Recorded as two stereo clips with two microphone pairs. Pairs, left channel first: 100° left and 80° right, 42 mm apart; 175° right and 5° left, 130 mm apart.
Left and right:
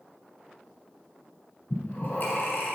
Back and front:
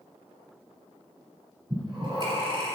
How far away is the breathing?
About 3 m.